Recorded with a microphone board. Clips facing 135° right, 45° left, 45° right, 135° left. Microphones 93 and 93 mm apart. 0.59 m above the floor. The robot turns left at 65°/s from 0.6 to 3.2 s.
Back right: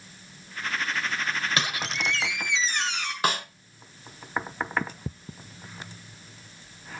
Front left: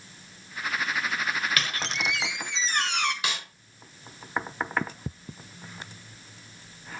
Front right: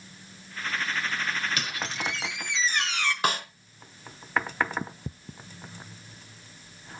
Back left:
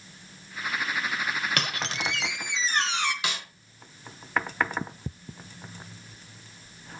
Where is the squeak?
160° left, 1.2 m; by 3.1 s 60° left, 1.2 m.